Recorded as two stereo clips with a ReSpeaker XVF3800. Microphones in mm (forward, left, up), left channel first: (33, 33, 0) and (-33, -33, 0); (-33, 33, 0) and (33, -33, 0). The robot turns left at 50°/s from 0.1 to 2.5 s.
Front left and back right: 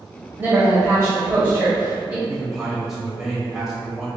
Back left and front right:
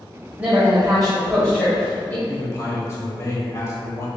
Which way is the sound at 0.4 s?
100° right.